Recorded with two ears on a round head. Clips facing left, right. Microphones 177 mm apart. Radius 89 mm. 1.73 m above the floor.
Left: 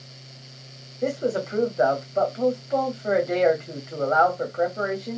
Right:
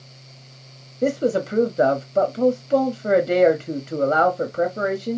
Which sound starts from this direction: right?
A man speaking, at 1.0 s.